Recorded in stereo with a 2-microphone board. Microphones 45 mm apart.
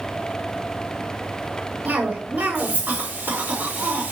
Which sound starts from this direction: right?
A cough, at 1.9 s.